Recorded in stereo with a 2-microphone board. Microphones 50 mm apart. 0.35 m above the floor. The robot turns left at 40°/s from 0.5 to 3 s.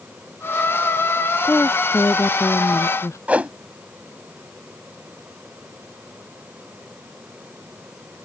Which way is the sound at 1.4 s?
145° left.